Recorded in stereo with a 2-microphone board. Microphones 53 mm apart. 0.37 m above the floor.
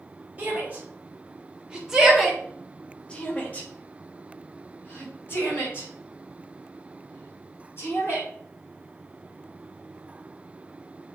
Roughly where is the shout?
Right.